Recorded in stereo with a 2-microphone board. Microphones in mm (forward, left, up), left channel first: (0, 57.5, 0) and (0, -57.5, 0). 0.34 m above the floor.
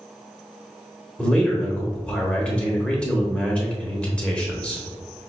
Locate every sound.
1.2 s a man speaking: 10° left (ahead or behind), 1.0 m